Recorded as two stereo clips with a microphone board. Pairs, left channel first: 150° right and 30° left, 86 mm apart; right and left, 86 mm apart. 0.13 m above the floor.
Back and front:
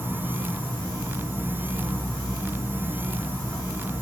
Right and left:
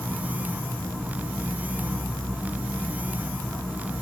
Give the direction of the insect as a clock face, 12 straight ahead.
6 o'clock.